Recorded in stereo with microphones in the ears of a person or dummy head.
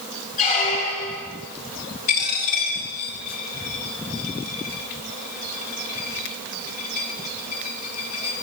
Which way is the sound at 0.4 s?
45° left (ahead or behind).